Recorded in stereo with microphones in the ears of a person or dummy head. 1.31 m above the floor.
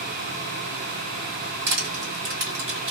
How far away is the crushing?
About 1.9 m.